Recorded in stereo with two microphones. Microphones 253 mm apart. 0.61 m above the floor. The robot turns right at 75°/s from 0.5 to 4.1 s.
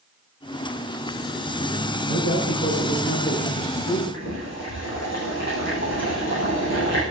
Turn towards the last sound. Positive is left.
turn(degrees=85)